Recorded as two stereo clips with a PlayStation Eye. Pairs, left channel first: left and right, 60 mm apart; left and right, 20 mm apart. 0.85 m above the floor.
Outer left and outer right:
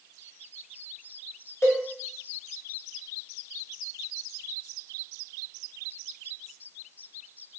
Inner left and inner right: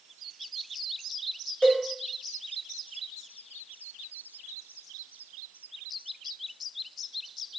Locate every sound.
1.6 s a cowbell: 50° left (ahead or behind), 0.7 m